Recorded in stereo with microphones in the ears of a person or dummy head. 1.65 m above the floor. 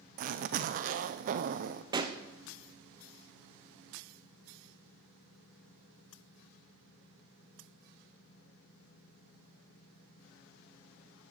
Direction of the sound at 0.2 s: 45° right (ahead or behind).